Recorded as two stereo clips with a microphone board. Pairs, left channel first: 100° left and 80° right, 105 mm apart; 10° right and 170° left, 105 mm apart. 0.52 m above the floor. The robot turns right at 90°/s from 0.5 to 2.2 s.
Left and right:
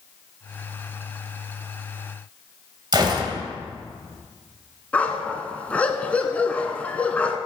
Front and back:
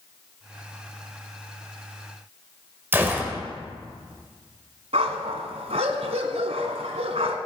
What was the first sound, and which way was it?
A gunshot, 120° right.